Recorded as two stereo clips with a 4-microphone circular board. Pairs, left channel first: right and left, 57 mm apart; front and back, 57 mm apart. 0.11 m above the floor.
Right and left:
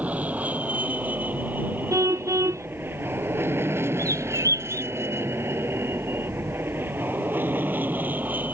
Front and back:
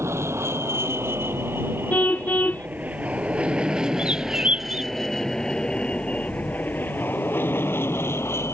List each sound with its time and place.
0.0 s an aircraft: 150° left; by 8.6 s 30° left
1.9 s a car horn: 60° left
4.0 s a bird: 110° left